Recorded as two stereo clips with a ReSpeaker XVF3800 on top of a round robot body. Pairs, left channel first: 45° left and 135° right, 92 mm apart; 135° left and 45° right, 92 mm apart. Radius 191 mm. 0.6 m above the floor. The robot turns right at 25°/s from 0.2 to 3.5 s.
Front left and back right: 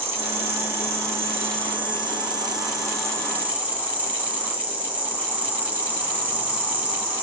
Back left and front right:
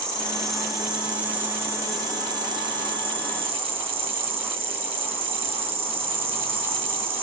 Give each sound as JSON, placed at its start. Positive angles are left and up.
{"t": 0.0, "sound": "an insect", "azimuth_deg": -145, "distance_m": 1.7}